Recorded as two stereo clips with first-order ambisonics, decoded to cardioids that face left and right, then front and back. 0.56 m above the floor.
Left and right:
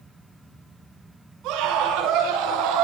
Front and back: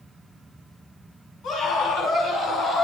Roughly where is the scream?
Ahead right.